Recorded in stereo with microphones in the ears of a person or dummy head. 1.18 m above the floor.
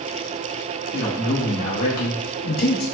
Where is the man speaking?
60° left (ahead or behind), 2 m; by 2.8 s 45° left (ahead or behind), 1.0 m.